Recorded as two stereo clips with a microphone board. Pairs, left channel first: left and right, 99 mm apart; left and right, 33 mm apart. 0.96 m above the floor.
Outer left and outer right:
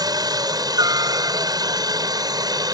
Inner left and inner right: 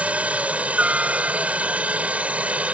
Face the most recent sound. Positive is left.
turn(degrees=-40)  # may be behind; listen again after turning